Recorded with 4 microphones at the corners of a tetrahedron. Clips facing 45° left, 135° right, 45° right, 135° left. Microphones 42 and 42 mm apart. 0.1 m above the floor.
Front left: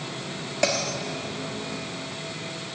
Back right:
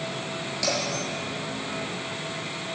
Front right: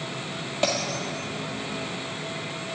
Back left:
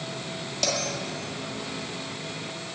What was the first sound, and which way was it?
A bell, 15° left.